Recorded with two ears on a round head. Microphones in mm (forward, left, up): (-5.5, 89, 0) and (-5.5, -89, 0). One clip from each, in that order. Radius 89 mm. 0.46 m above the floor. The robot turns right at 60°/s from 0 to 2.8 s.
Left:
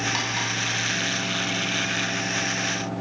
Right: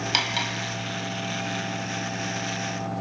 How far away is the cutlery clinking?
About 2.0 m.